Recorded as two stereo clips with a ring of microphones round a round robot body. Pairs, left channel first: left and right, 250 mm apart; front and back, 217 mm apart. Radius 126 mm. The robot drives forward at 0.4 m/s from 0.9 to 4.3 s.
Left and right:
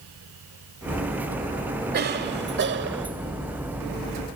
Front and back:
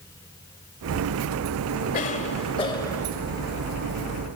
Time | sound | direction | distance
1.9 | a cough | 50° right | 1.3 m